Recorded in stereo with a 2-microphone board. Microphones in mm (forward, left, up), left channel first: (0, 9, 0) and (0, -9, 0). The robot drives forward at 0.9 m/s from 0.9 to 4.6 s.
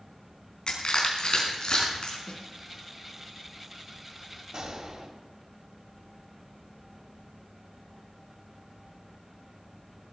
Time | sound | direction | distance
0.7 | crushing | 50° left (ahead or behind) | 4 m
2.3 | a snare drum | 45° left (ahead or behind) | 2 m
4.5 | a gunshot | 45° right (ahead or behind) | 2.5 m